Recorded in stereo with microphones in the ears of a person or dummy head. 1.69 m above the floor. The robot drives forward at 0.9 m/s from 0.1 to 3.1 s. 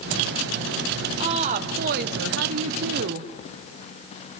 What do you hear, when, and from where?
1.2 s a woman speaking: 30° right (ahead or behind), 1.5 m; by 3.3 s 55° right (ahead or behind), 0.9 m